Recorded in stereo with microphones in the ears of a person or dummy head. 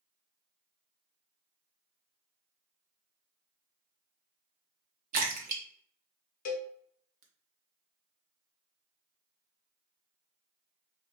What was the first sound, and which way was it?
A splash, 45° right (ahead or behind).